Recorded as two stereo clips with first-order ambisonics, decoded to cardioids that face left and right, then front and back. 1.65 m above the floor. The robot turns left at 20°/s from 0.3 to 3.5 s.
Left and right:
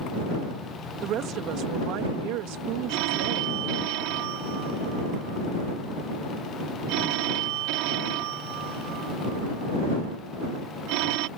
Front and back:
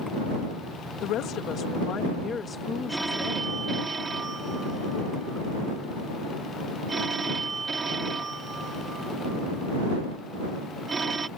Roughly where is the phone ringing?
Right.